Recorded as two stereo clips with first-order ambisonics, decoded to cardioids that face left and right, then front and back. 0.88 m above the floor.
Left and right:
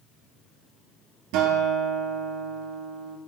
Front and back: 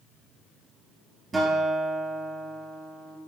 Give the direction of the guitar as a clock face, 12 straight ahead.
3 o'clock.